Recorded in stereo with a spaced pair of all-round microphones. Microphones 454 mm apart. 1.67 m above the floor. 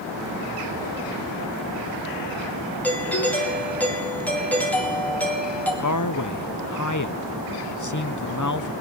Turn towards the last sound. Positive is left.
turn(degrees=40)  # may be behind; listen again after turning